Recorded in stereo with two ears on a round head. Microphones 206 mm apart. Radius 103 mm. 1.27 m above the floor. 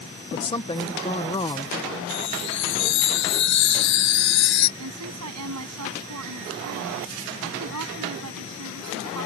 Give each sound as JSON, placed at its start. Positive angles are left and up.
{"t": 0.3, "sound": "a woman speaking", "side_deg": 20}
{"t": 2.1, "sound": "a chime", "side_deg": 55}
{"t": 4.8, "sound": "a woman speaking", "side_deg": -80}